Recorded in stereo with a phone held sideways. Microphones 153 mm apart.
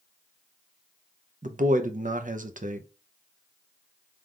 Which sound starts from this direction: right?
A man speaking, at 1.4 s.